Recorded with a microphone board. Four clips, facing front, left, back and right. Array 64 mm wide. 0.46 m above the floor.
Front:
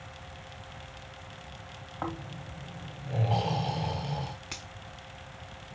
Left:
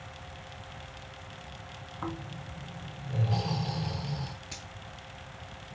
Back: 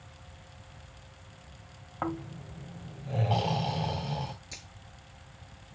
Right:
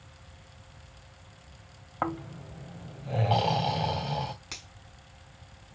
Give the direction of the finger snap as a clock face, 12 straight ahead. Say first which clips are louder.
Left 1 dB, front 6 dB; 1 o'clock.